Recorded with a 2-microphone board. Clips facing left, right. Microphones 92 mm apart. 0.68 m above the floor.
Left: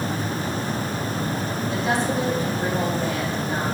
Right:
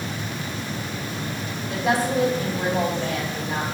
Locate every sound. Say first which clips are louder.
1.7 s a woman speaking: right 2 dB; 60° right (ahead or behind), 3.5 m